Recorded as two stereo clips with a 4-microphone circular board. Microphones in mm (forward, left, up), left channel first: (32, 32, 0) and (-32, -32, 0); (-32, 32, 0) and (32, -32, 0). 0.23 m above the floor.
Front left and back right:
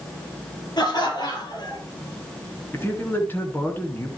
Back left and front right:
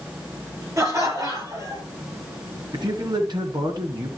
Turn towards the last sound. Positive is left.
turn(degrees=-20)